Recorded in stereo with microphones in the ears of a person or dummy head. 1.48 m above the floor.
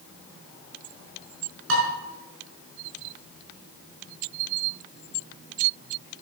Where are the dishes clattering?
75° right (ahead or behind), 5 m.